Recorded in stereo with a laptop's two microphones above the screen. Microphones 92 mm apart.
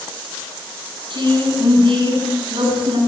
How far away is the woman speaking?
About 9 m.